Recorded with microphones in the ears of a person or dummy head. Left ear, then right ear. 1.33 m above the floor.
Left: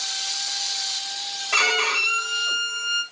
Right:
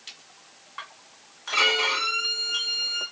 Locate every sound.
1.5 s a violin: 55° left (ahead or behind), 3.5 m